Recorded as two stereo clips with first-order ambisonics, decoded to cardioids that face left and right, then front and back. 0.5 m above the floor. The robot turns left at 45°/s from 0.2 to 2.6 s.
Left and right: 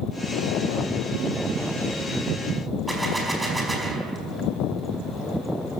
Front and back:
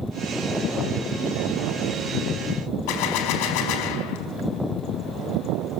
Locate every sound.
2.9 s a gunshot: 5° right, 4.5 m